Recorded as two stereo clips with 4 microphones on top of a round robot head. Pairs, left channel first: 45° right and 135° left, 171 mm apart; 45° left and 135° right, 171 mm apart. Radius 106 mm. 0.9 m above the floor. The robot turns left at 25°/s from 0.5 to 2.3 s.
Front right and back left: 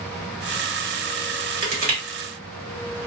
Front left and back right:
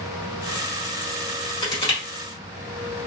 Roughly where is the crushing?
Left.